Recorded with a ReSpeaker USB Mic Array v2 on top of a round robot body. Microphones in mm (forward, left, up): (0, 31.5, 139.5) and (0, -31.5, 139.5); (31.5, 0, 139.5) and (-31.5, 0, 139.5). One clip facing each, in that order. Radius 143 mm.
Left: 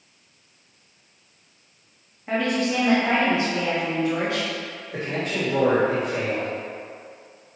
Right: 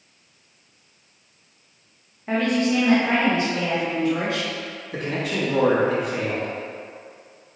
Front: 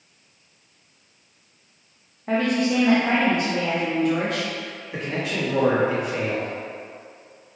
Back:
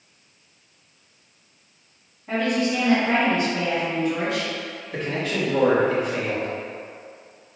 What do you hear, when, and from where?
2.3 s a woman speaking: 10° right, 0.9 m; by 4.5 s 30° left, 2 m
4.9 s a man speaking: 75° right, 1.5 m